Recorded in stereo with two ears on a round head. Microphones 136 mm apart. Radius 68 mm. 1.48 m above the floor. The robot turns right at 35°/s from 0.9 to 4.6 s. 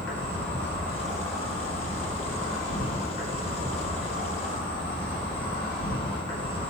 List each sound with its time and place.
0.0 s an insect: 15° left, 1.1 m; by 6.7 s 145° left, 1.1 m